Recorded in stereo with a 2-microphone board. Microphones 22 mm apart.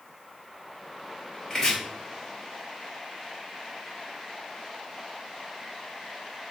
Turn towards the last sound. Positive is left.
turn(degrees=30)  # may be behind; listen again after turning